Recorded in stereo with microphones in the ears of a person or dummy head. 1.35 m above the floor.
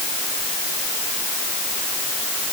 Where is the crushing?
No crushing in this recording.